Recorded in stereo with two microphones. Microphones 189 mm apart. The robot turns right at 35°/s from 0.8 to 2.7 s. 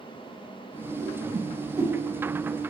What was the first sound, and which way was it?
A whoosh, 45° right (ahead or behind).